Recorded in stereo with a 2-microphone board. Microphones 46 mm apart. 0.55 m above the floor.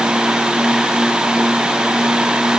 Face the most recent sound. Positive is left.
No sound to turn to.